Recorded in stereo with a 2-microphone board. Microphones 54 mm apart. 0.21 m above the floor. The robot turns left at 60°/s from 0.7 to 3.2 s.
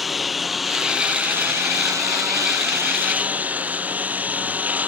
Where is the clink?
I don't hear a clink.